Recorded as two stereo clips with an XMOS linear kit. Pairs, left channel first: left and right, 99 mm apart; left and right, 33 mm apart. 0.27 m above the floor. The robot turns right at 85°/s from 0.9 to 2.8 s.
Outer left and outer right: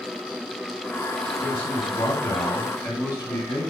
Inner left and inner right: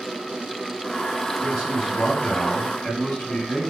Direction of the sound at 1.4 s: 30° left.